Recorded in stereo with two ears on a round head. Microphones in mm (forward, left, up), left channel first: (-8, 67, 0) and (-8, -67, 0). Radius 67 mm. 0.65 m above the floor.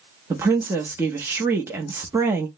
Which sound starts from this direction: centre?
A woman speaking, at 0.3 s.